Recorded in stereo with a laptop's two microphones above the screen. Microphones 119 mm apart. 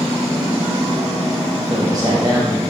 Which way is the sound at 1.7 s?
35° right (ahead or behind).